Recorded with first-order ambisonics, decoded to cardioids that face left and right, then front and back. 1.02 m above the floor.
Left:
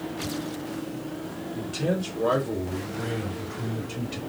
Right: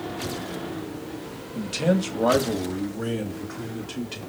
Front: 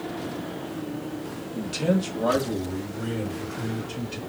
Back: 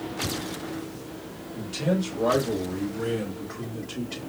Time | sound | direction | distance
1.6 | a man speaking | 65° right | 1.3 m